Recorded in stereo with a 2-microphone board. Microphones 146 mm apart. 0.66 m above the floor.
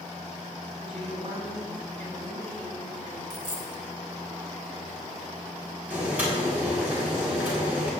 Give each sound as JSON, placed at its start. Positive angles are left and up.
{"t": 0.8, "sound": "a woman speaking", "side_deg": -45, "distance_m": 6.0}
{"t": 3.3, "sound": "a dropped coin", "side_deg": 75, "distance_m": 2.5}
{"t": 5.9, "sound": "boiling", "side_deg": -10, "distance_m": 5.5}